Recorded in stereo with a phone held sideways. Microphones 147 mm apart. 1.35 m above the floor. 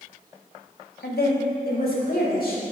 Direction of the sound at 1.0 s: 90° left.